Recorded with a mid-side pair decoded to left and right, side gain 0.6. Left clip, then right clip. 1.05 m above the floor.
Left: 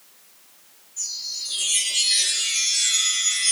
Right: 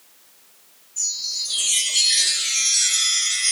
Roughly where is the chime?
Ahead right.